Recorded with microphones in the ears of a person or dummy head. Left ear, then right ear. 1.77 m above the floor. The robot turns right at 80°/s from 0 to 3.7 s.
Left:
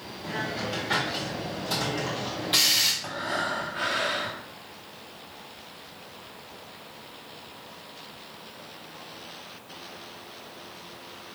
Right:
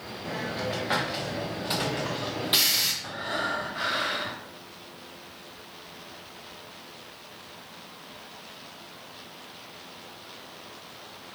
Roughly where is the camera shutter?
No camera shutter in this recording.